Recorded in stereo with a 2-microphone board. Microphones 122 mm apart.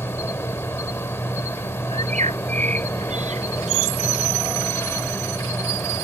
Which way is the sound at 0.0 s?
20° left (ahead or behind).